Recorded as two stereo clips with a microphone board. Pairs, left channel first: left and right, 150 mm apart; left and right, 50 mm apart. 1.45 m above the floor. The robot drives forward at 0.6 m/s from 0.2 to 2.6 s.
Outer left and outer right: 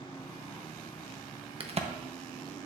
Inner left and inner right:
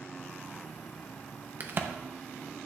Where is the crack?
40° right (ahead or behind), 0.7 m; by 1.9 s 45° right (ahead or behind), 0.6 m.